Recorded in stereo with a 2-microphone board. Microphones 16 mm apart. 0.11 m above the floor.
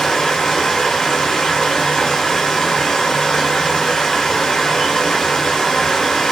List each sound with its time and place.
0.0 s running water: 70° left (ahead or behind), 2 m